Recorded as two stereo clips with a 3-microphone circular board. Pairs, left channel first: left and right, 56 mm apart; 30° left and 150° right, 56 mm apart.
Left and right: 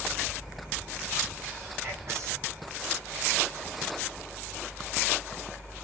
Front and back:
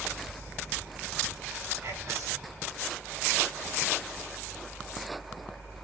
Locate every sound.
1.8 s whispering: 120° right, 8.5 m